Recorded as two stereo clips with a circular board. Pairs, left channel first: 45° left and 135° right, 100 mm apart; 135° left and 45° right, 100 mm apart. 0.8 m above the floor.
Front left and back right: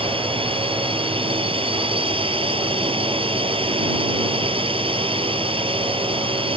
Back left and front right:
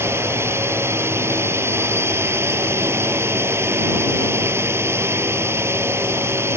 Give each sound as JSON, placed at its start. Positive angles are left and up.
{"t": 0.0, "sound": "a drone", "azimuth_deg": -110}